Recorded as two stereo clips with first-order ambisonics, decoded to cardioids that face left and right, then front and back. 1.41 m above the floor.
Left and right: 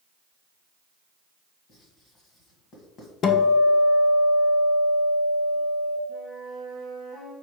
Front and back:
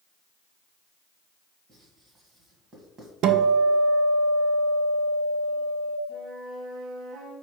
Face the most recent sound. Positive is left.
turn(degrees=-165)